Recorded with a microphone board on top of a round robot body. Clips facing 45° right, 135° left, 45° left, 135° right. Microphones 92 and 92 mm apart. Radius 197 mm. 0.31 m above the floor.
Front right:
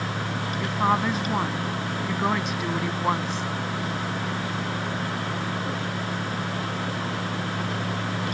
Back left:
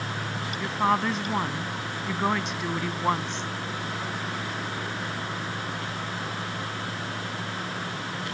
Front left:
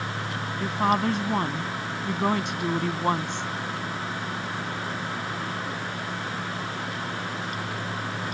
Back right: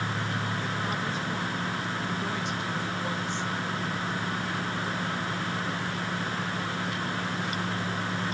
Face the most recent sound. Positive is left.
turn(degrees=40)